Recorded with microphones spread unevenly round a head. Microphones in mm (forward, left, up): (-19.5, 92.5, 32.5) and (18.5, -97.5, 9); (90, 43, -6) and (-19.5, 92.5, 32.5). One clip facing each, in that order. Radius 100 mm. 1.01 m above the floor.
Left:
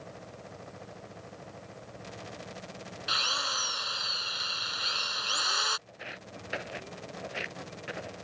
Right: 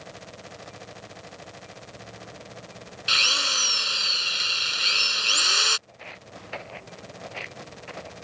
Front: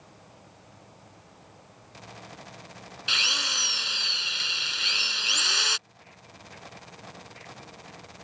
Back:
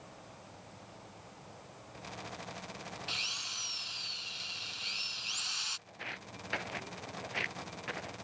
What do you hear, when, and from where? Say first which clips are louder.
3.1 s a drill: right 6 dB, front 11 dB; 20° right
5.9 s footsteps: right 1 dB, back 4 dB; 175° left